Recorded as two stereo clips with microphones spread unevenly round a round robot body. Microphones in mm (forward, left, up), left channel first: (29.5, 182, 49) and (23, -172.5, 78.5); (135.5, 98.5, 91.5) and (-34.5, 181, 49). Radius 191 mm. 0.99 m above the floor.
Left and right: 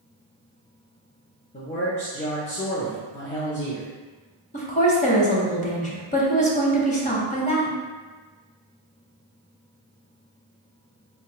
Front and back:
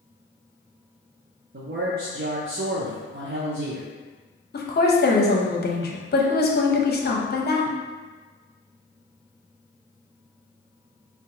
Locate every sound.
1.5 s a man speaking: 155° left, 0.5 m
4.5 s a woman speaking: 20° left, 0.8 m